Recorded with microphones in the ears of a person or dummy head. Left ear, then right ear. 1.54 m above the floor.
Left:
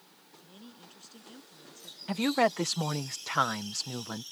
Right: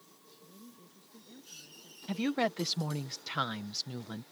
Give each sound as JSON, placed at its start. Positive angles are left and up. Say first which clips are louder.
{"t": 0.4, "sound": "a woman speaking", "louder": "left 5 dB", "side_deg": 90}
{"t": 2.1, "sound": "a woman speaking", "louder": "left 5 dB", "side_deg": 35}